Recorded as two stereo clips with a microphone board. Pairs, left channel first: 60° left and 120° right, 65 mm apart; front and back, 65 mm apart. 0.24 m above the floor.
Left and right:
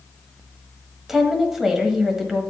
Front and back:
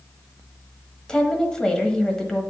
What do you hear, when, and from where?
1.1 s a woman speaking: 50° right, 1.2 m